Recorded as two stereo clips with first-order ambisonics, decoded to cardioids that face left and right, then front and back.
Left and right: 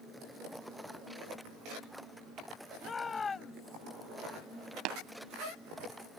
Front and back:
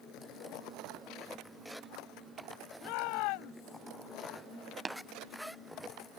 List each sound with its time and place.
2.8 s a shout: 15° left
4.8 s tapping: 105° right